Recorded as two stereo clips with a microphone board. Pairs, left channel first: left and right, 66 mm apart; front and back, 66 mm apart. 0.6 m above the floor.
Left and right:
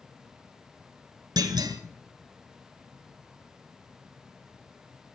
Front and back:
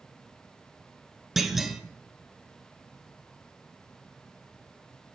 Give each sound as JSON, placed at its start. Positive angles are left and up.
{"t": 1.4, "sound": "a clunk", "azimuth_deg": -95, "distance_m": 1.5}